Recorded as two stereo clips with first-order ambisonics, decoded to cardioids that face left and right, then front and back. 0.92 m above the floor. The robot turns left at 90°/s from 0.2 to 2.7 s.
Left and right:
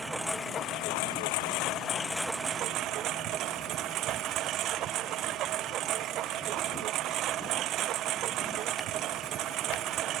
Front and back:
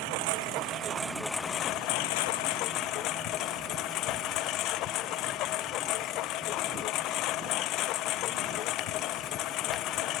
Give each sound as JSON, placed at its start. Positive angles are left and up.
{"t": 0.0, "sound": "a lawn mower", "azimuth_deg": -175}